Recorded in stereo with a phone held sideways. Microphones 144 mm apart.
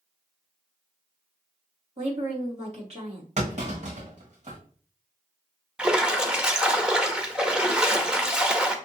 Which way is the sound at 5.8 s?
5° right (ahead or behind).